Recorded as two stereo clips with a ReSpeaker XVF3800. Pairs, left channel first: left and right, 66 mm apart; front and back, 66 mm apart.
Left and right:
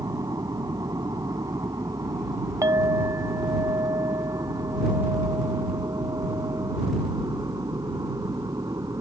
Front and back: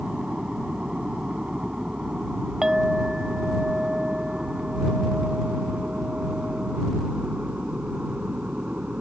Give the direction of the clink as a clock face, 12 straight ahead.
3 o'clock.